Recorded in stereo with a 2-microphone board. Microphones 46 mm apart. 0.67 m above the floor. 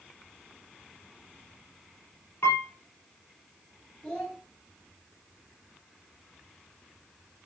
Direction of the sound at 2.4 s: 80° left.